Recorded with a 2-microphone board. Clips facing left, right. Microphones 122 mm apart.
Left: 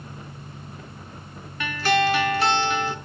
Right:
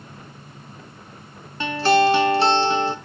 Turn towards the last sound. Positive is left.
turn(degrees=-30)  # may be behind; listen again after turning